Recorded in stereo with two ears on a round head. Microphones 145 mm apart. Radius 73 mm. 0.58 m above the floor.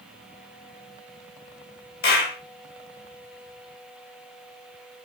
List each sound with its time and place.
2.0 s a clap: 65° left (ahead or behind), 3 m